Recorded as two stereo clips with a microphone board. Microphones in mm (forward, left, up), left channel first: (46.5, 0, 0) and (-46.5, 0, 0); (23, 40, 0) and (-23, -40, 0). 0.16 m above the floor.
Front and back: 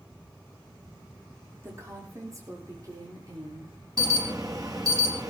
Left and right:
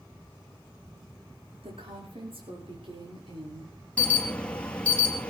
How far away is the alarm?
About 2.5 m.